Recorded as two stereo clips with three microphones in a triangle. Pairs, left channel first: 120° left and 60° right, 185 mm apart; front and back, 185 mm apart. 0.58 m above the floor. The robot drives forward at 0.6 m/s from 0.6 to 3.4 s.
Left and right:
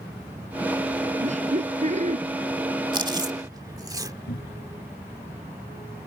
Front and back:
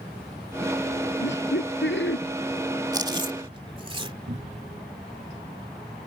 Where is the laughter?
10° right.